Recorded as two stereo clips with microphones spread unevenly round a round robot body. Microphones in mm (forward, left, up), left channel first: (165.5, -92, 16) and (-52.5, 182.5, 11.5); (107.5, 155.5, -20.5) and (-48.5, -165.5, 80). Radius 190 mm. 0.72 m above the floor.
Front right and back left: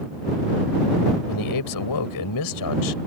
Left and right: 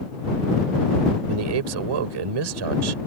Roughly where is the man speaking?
Right.